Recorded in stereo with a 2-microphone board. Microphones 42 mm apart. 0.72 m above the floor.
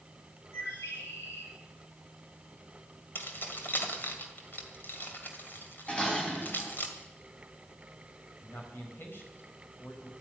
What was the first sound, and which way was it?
A bird, 85° left.